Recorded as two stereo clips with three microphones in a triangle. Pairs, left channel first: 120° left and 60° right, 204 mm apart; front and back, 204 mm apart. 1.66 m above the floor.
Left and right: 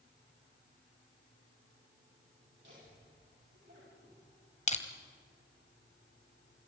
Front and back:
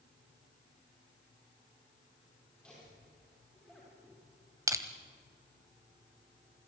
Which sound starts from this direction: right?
Laughter, at 2.6 s.